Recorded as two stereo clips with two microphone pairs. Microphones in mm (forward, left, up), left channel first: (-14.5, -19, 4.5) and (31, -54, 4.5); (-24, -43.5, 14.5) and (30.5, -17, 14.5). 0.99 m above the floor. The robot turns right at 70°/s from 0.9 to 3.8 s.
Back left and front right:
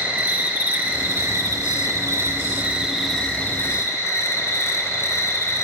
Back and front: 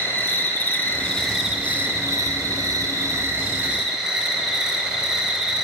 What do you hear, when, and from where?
0.0 s an insect: 95° right, 0.9 m; by 5.6 s 110° left, 0.9 m